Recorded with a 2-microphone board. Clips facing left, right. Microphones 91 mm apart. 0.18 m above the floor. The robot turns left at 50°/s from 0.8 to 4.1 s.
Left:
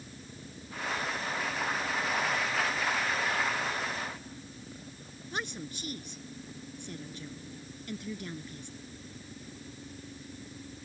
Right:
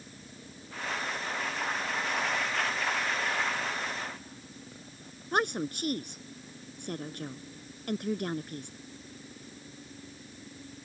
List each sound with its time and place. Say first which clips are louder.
5.3 s a woman speaking: right 9 dB; 55° right (ahead or behind)